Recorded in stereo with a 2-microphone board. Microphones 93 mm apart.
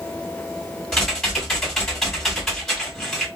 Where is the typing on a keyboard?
5° left (ahead or behind), 2 m.